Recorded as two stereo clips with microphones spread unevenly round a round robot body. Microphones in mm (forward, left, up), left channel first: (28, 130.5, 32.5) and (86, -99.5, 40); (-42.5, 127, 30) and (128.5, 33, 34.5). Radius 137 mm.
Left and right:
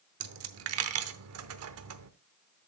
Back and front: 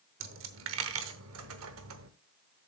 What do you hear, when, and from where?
0.2 s a dropped coin: 60° right, 0.8 m